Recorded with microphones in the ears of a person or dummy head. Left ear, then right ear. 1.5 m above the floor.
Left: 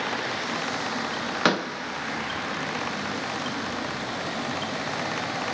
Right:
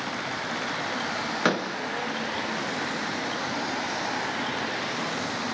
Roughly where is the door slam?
Centre.